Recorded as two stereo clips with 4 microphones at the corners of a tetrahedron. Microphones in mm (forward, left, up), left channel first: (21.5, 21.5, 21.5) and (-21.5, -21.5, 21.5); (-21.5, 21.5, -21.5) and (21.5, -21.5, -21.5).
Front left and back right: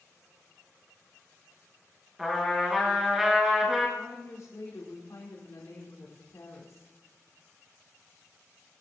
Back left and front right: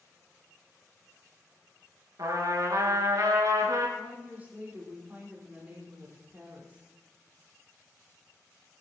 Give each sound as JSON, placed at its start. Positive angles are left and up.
{"t": 2.2, "sound": "a trumpet", "azimuth_deg": -50, "distance_m": 4.5}
{"t": 4.0, "sound": "a woman speaking", "azimuth_deg": 15, "distance_m": 4.5}